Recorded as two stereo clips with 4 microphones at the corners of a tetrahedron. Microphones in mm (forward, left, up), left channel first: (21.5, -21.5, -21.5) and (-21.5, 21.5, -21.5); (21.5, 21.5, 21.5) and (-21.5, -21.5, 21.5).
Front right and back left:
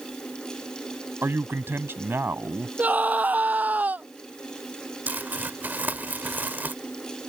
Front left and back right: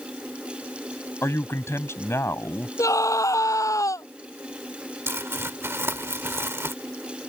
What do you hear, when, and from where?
1.2 s a man speaking: 85° left
2.8 s a scream: 75° left
5.1 s crumpling: 170° right